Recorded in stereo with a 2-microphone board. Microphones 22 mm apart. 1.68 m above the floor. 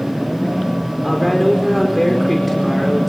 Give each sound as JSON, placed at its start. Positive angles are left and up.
{"t": 1.0, "sound": "a woman speaking", "side_deg": 10, "distance_m": 4.5}